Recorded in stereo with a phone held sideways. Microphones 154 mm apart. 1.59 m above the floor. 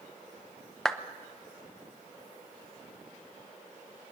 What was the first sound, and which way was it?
A clap, 5° left (ahead or behind).